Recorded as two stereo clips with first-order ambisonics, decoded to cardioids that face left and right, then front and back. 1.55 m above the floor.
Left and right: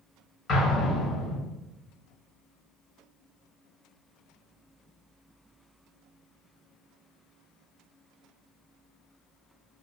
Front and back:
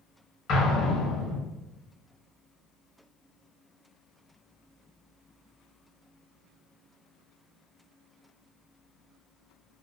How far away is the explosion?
About 1.0 m.